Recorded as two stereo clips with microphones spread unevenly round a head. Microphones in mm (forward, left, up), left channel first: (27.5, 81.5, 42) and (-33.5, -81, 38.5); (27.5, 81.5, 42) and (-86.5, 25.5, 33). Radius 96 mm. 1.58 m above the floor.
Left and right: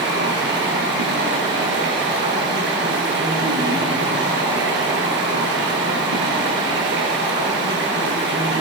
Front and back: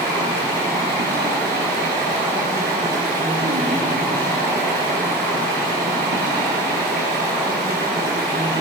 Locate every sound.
0.0 s running water: 130° right, 8.5 m